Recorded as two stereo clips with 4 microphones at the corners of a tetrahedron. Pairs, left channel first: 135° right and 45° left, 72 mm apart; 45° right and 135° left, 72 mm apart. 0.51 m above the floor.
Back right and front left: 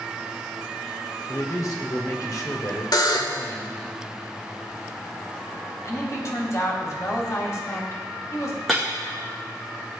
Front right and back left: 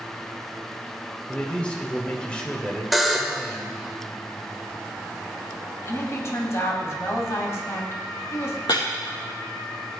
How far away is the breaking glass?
About 4 m.